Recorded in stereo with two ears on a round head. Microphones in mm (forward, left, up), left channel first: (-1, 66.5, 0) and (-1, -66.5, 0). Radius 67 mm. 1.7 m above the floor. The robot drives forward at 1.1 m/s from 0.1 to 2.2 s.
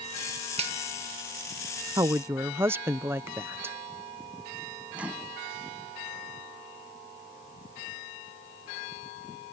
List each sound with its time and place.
0.6 s a finger snap: 40° right (ahead or behind)
2.0 s a woman speaking: 20° right (ahead or behind); by 3.8 s 15° right (ahead or behind)
4.9 s a microwave: 10° right (ahead or behind)